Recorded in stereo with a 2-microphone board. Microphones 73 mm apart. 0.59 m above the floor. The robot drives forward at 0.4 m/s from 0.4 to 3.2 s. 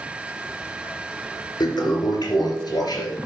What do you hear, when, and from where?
1.6 s a toilet flushing: 65° left (ahead or behind), 3 m; by 3.2 s 55° left (ahead or behind), 3 m